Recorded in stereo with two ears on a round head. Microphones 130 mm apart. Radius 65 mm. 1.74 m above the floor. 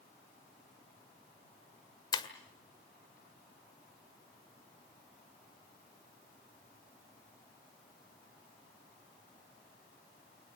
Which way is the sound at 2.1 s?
30° left (ahead or behind).